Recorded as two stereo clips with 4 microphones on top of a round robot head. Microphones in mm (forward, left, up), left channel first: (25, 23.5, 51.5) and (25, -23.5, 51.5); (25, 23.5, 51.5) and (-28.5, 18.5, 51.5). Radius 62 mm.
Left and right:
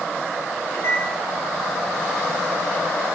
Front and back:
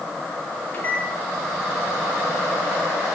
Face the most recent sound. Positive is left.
turn(degrees=60)